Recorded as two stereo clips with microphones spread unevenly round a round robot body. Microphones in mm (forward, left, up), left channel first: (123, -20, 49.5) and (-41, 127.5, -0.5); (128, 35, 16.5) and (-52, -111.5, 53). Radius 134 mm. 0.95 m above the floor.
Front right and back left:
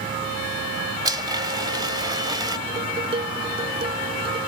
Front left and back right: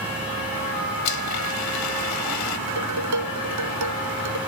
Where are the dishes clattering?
150° right.